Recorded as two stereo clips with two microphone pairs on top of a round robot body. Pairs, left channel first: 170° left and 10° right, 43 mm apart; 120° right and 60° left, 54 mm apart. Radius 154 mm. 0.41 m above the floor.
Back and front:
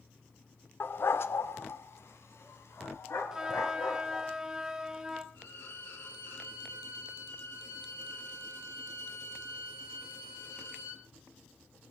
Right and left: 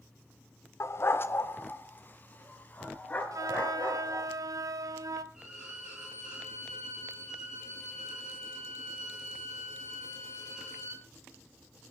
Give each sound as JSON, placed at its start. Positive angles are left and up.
{"t": 0.8, "sound": "a dog barking", "azimuth_deg": -150, "distance_m": 1.1}
{"t": 3.3, "sound": "a flute", "azimuth_deg": 65, "distance_m": 1.5}
{"t": 5.3, "sound": "a violin", "azimuth_deg": 140, "distance_m": 10.0}